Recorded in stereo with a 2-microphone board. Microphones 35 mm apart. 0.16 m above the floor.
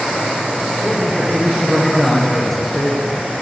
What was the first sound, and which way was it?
A man speaking, 10° left (ahead or behind).